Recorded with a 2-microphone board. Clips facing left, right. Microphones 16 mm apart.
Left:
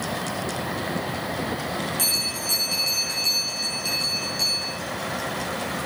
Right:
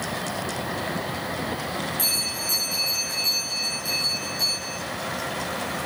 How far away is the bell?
About 7 m.